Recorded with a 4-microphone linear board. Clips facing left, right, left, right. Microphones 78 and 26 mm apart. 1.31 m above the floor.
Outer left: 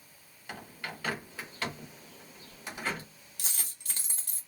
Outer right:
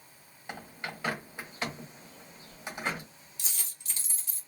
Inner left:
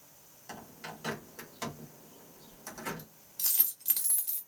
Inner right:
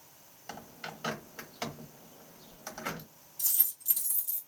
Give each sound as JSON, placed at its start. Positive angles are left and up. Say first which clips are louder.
{"t": 0.5, "sound": "a bird", "louder": "outer right 1 dB, inner right 1 dB", "side_deg": -20, "distance_m": 1.0}
{"t": 3.4, "sound": "a dropped coin", "louder": "outer left 2 dB, inner left 1 dB", "side_deg": 50, "distance_m": 1.1}